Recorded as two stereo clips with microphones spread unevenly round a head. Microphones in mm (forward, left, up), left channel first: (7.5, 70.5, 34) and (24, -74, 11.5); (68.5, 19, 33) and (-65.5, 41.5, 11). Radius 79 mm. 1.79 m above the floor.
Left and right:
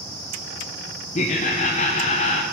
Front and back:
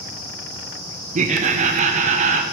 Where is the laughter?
135° left, 0.5 m.